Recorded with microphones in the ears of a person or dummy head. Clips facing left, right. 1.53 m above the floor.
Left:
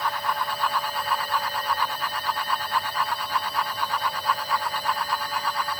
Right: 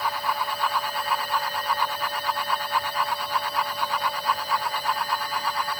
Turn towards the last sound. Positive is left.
No sound to turn to.